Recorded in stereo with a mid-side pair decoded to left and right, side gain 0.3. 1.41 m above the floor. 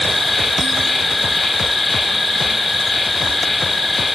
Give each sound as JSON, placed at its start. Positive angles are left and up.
{"t": 0.0, "sound": "an insect", "azimuth_deg": 40, "distance_m": 1.5}